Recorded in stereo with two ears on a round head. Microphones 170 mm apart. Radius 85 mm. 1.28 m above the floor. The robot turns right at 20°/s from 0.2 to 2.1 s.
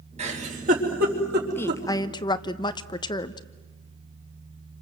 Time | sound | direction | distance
0.2 | a giggle | 35° right (ahead or behind) | 4 m
1.6 | a woman speaking | 10° left (ahead or behind) | 0.9 m